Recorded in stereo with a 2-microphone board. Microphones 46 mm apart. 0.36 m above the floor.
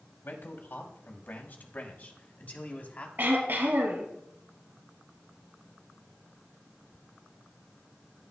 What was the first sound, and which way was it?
A man speaking, 55° left (ahead or behind).